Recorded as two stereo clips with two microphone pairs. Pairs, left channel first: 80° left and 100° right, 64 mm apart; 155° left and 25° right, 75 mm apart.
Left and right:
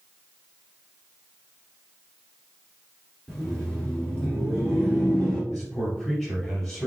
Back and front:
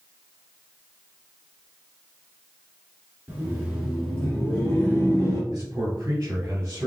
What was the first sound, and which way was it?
Laughter, 5° left.